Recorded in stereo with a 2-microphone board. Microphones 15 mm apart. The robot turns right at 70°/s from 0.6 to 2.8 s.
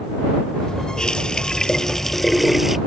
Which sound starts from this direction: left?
A running tap, at 1.0 s.